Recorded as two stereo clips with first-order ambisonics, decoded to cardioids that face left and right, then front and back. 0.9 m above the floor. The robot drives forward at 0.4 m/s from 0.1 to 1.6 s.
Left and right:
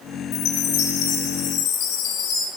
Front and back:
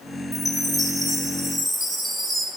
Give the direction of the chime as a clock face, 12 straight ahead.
9 o'clock.